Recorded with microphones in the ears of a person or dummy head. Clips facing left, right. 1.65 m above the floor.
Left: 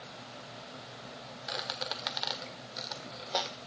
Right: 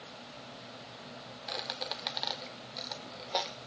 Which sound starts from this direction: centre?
A squeak, at 1.5 s.